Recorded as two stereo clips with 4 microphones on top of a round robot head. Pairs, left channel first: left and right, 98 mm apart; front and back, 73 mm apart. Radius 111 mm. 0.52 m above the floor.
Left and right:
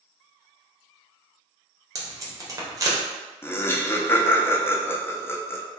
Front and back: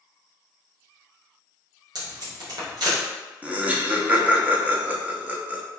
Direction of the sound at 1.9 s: 150° right.